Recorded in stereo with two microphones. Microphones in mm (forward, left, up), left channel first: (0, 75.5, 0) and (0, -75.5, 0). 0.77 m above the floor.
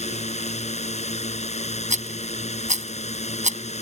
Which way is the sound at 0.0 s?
50° left (ahead or behind).